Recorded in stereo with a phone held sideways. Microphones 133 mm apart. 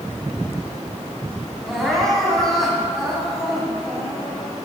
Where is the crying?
Centre (ahead or behind), 3 m.